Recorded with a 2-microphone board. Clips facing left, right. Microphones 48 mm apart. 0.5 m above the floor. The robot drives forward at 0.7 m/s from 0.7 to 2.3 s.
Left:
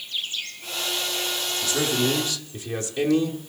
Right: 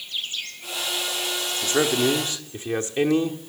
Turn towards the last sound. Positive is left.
turn(degrees=-30)  # may be behind; listen again after turning